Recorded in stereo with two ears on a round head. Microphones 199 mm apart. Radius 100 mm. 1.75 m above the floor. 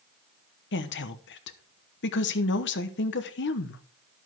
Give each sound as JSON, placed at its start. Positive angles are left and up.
{"t": 0.7, "sound": "a woman speaking", "side_deg": 55, "distance_m": 1.0}